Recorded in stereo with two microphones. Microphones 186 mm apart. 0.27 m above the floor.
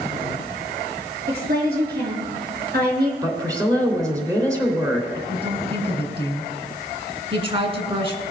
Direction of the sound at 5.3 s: 30° right (ahead or behind).